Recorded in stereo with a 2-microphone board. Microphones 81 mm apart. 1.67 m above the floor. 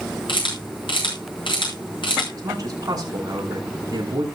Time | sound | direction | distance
0.3 | a camera shutter | 70° left (ahead or behind) | 7 m
2.3 | a man speaking | 45° right (ahead or behind) | 5 m